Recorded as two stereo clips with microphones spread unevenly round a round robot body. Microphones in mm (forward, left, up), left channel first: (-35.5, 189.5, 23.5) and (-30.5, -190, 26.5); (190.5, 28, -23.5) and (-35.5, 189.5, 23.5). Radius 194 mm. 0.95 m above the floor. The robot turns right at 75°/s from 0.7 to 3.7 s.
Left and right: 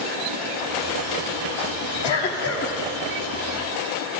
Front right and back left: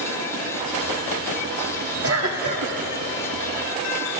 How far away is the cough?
About 2 m.